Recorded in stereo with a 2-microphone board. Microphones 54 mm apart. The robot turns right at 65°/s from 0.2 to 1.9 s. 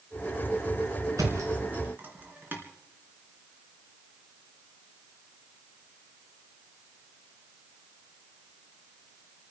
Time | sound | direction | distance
1.2 | a thud | 80° right | 2.5 m